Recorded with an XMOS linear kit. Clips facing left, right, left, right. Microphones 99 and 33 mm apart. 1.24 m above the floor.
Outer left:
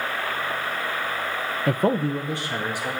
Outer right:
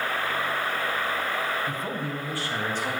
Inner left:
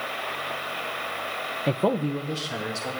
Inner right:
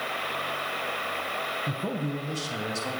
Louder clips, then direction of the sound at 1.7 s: Outer left 9 dB, inner left 6 dB; 75° left (ahead or behind).